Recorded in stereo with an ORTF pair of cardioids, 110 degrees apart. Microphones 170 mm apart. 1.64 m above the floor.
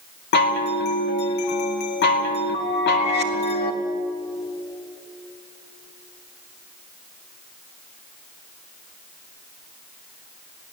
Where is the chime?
70° left, 2 m.